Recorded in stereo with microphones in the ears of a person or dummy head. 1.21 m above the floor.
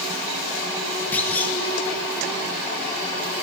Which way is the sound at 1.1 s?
15° left (ahead or behind).